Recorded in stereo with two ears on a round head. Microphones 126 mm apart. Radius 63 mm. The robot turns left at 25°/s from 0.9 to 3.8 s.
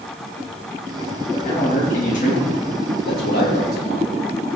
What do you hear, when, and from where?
1.3 s a man speaking: 135° left, 7.5 m; by 4.1 s 75° left, 7.5 m